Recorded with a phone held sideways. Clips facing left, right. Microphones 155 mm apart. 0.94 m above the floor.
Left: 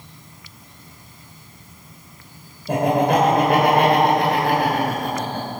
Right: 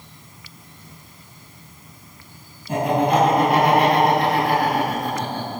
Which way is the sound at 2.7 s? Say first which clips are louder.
Left 1 dB; 70° left (ahead or behind).